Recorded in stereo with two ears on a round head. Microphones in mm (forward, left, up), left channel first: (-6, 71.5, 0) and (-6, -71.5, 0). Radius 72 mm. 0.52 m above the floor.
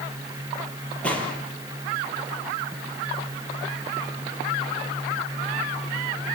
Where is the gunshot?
10° left (ahead or behind), 5.5 m.